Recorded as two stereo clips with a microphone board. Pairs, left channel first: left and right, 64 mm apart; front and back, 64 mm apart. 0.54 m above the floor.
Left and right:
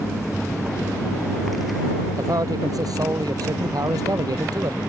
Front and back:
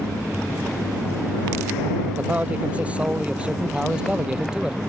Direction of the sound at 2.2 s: 115° right.